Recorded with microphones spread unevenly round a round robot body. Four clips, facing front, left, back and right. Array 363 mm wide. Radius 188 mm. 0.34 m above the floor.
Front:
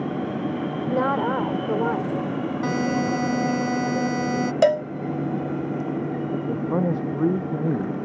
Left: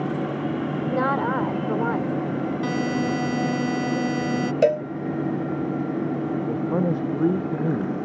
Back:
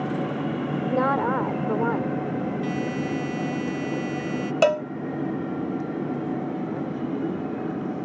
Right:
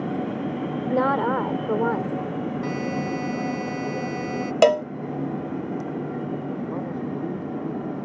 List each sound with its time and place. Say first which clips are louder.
0.9 s a woman speaking: right 2 dB, even; 80° right
2.6 s a buzzer: left 3 dB, front 4 dB; 35° left
4.6 s a cowbell: right 3 dB, front 2 dB; 90° right
6.5 s a man speaking: left 6 dB, front 5 dB; 45° left